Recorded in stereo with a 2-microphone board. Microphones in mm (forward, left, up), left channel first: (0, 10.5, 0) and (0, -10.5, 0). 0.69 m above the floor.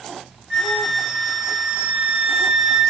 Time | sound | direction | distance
0.5 | a flute | 45° right (ahead or behind) | 1.7 m